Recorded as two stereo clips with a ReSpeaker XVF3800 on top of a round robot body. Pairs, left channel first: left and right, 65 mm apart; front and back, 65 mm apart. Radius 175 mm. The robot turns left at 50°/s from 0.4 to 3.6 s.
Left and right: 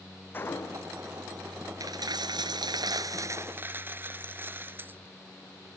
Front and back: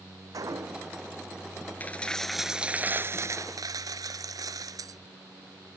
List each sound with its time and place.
0.3 s a gunshot: 150° left; by 1.0 s 120° left
1.8 s a dropped coin: 60° right; by 5.0 s 150° right